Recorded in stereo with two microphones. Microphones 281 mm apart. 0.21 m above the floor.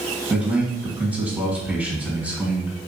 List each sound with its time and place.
0.3 s a man speaking: 5° right (ahead or behind), 1.8 m